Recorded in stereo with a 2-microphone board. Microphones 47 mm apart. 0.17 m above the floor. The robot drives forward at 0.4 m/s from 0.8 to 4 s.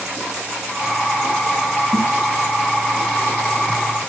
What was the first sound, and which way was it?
A snare drum, 70° right (ahead or behind).